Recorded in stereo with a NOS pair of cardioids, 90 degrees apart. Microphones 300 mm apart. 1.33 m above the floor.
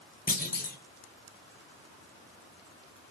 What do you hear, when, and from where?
0.3 s a clunk: 30° left, 0.7 m